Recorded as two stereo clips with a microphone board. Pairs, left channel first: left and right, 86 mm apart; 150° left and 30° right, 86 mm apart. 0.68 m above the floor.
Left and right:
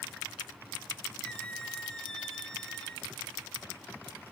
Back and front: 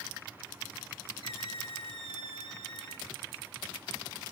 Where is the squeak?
170° left, 1.1 m.